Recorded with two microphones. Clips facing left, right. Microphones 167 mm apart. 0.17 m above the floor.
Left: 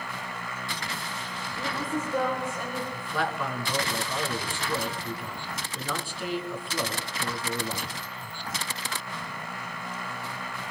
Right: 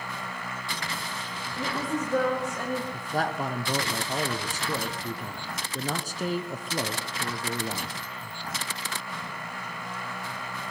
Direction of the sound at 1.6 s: 80° right.